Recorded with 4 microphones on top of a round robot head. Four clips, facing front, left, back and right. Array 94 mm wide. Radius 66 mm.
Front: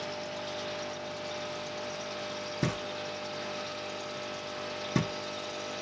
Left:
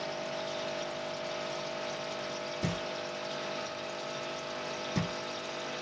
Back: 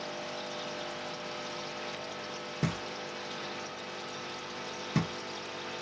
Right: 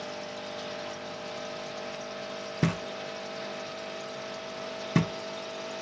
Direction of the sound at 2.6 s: 85° right.